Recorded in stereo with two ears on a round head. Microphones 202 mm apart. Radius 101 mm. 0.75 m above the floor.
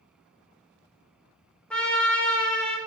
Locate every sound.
1.7 s a trumpet: 5° left (ahead or behind), 1.2 m